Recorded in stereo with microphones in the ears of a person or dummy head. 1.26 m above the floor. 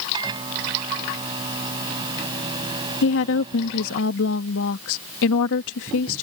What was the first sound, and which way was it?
A microwave, 25° right (ahead or behind).